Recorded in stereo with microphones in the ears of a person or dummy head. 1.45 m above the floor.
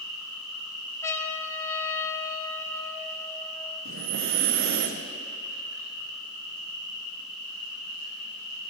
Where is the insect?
80° right, 6 m.